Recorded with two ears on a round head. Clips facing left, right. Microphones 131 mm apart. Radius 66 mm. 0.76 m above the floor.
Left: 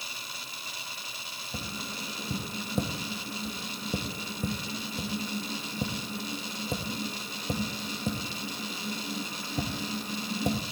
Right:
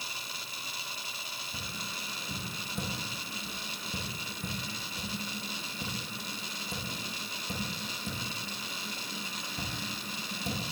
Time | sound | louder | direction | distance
1.5 | tapping | left 6 dB | 35° left (ahead or behind) | 1.3 m